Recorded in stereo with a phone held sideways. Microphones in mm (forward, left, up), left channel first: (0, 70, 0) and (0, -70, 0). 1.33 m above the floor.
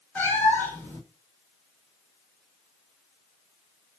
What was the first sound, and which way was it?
A cat meowing, 10° left (ahead or behind).